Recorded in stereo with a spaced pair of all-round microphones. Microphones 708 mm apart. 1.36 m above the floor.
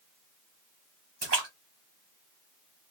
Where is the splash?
60° right (ahead or behind), 1.1 m.